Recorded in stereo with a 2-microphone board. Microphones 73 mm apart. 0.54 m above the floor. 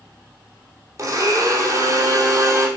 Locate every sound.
1.0 s a blender: 40° right (ahead or behind), 3.5 m